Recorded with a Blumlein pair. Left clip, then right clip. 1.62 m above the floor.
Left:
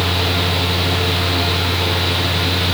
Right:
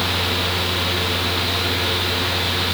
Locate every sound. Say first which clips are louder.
0.0 s a fan: left 2 dB; 55° left, 2 m